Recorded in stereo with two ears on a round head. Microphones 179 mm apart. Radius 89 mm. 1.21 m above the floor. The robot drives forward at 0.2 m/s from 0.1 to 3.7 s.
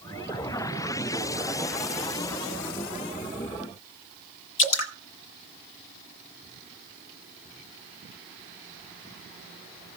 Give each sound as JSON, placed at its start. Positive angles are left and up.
{"t": 4.6, "sound": "dripping", "side_deg": 65, "distance_m": 1.4}